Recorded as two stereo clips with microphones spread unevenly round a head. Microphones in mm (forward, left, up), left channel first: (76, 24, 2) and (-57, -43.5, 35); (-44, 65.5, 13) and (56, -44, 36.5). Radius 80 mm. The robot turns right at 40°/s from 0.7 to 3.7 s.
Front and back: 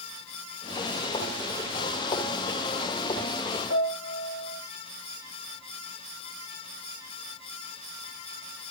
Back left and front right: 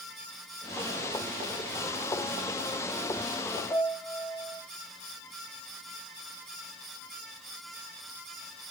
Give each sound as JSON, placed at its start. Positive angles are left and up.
{"t": 3.7, "sound": "a piano", "azimuth_deg": 55, "distance_m": 1.1}